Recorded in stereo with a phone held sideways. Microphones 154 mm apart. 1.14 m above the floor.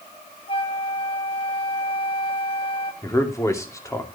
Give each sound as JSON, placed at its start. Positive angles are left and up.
{"t": 0.5, "sound": "a flute", "side_deg": 35, "distance_m": 1.2}
{"t": 3.0, "sound": "a man speaking", "side_deg": 20, "distance_m": 2.5}